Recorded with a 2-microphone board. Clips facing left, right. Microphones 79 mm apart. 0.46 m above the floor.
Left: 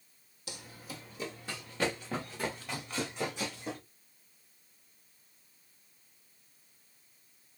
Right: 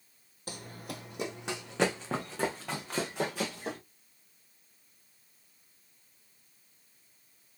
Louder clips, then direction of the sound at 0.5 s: Right 4 dB; 40° right (ahead or behind).